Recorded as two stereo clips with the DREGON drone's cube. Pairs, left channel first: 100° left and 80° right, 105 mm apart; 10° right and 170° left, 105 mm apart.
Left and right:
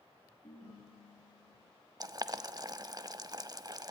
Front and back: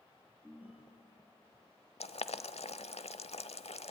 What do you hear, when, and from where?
0.4 s a ringtone: 95° left, 6.5 m
2.0 s boiling: 25° right, 0.9 m